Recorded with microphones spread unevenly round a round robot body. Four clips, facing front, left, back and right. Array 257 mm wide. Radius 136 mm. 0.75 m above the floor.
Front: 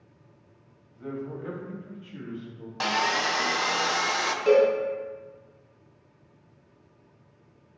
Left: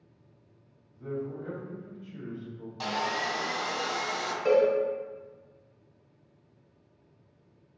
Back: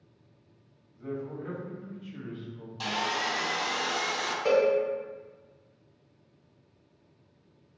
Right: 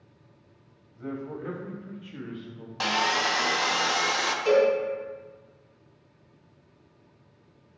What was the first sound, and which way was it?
A man speaking, 70° right.